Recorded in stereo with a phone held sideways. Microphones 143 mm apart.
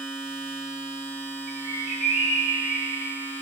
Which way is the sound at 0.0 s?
15° left (ahead or behind).